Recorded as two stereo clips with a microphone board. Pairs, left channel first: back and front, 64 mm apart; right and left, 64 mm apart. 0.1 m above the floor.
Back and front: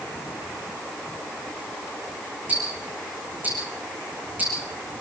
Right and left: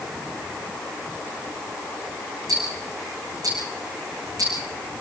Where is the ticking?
65° left, 5.5 m.